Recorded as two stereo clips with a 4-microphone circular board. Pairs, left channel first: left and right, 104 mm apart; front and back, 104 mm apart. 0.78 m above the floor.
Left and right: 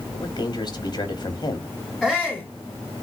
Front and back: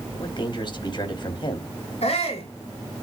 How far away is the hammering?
I don't hear hammering.